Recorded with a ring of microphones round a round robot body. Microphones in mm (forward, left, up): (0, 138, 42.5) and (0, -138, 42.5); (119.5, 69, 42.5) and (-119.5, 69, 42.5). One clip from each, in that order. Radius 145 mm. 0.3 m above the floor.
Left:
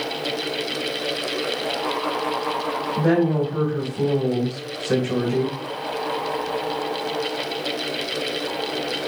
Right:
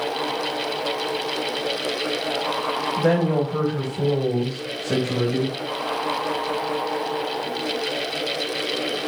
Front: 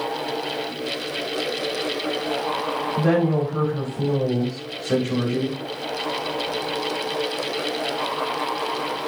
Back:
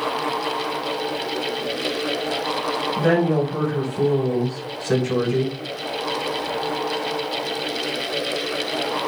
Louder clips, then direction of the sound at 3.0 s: Left 1 dB, back 2 dB; 130° right.